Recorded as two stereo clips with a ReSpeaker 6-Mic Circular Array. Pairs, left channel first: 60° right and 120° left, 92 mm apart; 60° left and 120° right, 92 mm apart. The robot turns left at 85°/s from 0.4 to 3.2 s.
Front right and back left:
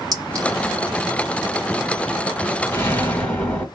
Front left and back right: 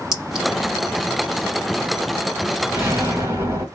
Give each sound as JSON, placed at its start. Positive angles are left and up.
{"t": 0.1, "sound": "a clink", "azimuth_deg": 160, "distance_m": 1.7}
{"t": 2.7, "sound": "an explosion", "azimuth_deg": -75, "distance_m": 1.7}